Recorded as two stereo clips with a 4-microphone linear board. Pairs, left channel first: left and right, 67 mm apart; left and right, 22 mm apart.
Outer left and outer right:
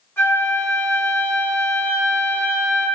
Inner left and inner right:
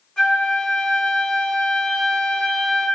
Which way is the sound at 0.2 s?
35° left (ahead or behind).